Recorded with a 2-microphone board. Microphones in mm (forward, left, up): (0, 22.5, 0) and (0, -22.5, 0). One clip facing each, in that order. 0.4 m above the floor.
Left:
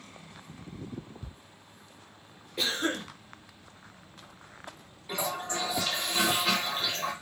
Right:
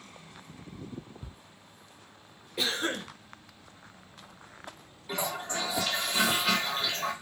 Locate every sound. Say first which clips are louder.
1.2 s ticking: left 1 dB; 15° right (ahead or behind), 0.5 m
2.6 s a cough: left 1 dB; 5° right (ahead or behind), 1.1 m
5.1 s a toilet flushing: even; centre (ahead or behind), 1.0 m